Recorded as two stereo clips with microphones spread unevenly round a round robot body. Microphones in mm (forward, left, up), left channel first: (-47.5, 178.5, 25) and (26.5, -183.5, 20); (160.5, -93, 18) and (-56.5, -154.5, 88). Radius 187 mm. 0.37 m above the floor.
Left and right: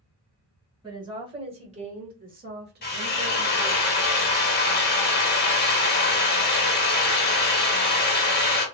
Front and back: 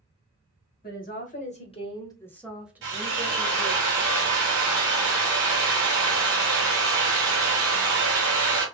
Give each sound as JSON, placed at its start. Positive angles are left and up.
{"t": 0.8, "sound": "a woman speaking", "azimuth_deg": 0, "distance_m": 1.4}
{"t": 2.8, "sound": "a drill", "azimuth_deg": 160, "distance_m": 0.9}